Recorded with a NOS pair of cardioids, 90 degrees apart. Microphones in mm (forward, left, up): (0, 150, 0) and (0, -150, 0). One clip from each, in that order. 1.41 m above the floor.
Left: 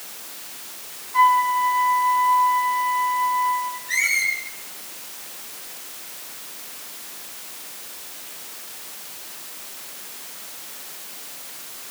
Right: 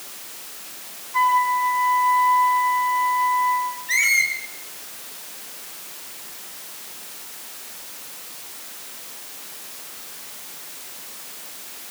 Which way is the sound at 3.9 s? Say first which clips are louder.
Right 2 dB; 40° right.